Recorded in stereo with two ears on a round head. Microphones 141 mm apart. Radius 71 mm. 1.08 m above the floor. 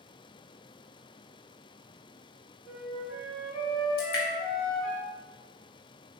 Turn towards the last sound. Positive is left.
turn(degrees=65)  # may be behind; listen again after turning